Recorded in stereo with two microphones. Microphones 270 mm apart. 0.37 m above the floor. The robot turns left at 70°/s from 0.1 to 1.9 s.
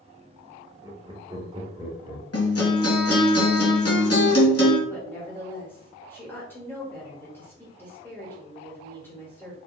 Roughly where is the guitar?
Left.